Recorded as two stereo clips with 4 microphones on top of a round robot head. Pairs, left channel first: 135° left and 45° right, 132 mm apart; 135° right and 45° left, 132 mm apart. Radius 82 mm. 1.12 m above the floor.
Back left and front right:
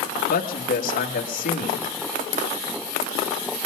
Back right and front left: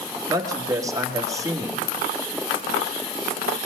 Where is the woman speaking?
115° left, 1.7 m.